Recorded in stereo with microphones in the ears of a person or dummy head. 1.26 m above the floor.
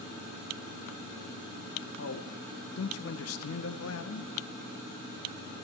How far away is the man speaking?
About 0.9 m.